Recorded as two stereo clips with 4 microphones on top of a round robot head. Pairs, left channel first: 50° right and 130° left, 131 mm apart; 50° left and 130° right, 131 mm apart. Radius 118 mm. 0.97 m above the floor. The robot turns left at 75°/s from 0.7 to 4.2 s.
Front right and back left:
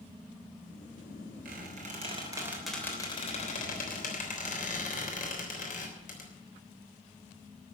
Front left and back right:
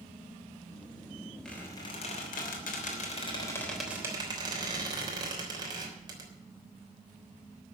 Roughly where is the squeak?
Behind left.